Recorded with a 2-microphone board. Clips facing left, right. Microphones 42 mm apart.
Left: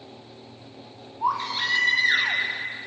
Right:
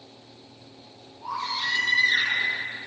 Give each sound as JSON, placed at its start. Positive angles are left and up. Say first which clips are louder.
{"t": 1.2, "sound": "a baby crying", "louder": "left 4 dB", "side_deg": 65, "distance_m": 5.0}